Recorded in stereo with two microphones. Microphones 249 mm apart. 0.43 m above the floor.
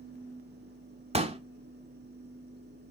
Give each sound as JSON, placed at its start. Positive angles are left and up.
{"t": 1.1, "sound": "a pop", "side_deg": -25, "distance_m": 0.6}